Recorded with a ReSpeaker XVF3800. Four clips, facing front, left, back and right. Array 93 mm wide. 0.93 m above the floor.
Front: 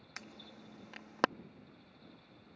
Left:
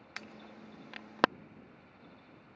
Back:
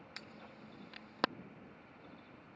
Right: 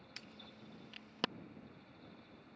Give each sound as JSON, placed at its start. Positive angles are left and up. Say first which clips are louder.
{"t": 0.2, "sound": "an alarm", "louder": "left 9 dB, front 3 dB", "azimuth_deg": 75}